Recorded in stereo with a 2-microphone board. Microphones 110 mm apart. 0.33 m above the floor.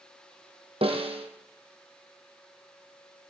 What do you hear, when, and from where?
0.8 s a snare drum: 60° right (ahead or behind), 3 m